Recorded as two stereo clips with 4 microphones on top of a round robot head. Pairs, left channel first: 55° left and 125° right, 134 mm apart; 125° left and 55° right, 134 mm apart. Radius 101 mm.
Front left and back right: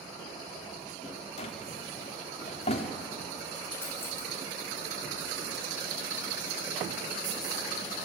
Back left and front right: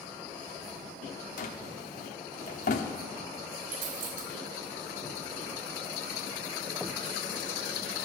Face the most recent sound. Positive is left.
turn(degrees=-20)